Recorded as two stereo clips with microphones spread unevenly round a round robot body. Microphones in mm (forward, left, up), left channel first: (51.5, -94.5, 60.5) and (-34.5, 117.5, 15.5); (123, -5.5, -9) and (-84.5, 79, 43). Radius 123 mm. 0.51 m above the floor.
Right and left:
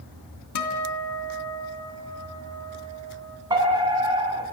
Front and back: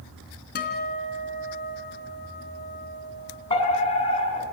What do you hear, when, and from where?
0.6 s a guitar: 80° right, 3 m
3.5 s a fire alarm: 40° left, 8 m